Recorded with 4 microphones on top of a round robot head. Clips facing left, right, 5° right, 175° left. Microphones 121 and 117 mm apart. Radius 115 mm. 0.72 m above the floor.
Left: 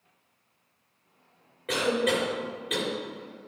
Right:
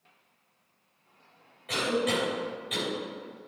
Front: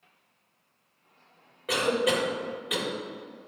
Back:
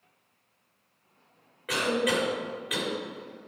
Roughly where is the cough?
Ahead left.